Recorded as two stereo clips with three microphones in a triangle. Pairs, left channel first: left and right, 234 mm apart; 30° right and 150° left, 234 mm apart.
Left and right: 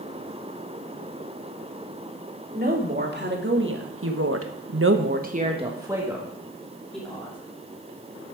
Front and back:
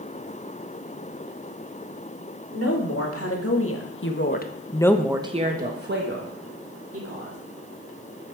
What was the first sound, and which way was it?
A woman speaking, 40° right.